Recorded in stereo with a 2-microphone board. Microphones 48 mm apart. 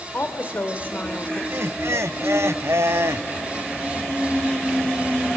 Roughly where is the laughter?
Right.